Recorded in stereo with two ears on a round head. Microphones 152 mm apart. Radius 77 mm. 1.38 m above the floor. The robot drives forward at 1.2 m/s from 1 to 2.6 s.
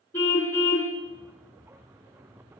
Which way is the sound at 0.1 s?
15° left (ahead or behind).